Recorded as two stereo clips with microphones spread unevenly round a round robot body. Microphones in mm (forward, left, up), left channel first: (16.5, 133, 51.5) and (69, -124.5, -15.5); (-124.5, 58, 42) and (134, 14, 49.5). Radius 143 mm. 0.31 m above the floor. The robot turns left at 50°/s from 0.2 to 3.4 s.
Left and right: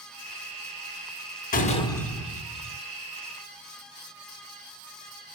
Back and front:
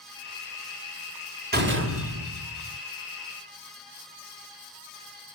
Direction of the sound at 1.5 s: 40° left.